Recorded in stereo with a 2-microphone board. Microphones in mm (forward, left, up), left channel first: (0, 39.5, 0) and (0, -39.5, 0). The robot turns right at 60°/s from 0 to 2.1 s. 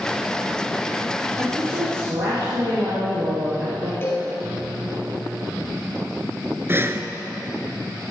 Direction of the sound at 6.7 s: 30° right (ahead or behind).